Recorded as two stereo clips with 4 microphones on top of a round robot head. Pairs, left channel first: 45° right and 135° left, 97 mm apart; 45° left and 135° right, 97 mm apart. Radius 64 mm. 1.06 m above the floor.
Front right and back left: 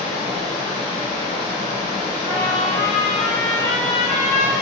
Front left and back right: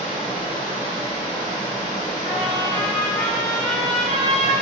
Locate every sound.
0.0 s running water: 50° right, 1.7 m
2.2 s a trumpet: 10° right, 1.0 m